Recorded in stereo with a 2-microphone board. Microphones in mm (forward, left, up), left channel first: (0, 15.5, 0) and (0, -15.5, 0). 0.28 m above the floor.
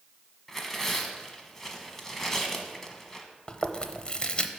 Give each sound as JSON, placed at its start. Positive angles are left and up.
{"t": 0.5, "sound": "tearing paper", "side_deg": 10, "distance_m": 1.2}
{"t": 3.5, "sound": "chewing", "side_deg": 25, "distance_m": 0.7}